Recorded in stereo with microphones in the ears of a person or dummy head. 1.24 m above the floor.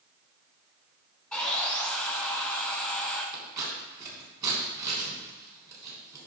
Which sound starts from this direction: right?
Scissors, at 3.3 s.